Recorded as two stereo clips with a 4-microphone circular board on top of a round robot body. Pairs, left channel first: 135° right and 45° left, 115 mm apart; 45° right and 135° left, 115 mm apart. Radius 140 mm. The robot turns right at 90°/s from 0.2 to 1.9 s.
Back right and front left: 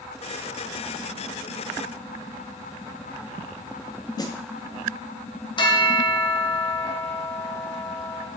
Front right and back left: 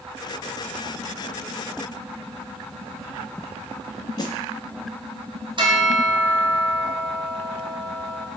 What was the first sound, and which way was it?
A snare drum, 90° right.